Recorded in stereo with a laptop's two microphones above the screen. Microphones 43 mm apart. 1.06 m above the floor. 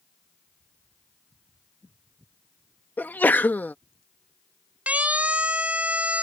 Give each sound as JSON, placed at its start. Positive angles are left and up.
{"t": 3.0, "sound": "a sneeze", "side_deg": 50}
{"t": 4.9, "sound": "a siren", "side_deg": -35}